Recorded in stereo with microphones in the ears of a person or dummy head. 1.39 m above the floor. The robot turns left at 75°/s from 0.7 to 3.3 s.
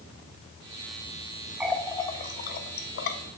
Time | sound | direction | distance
1.6 | a running tap | 5° right (ahead or behind) | 0.6 m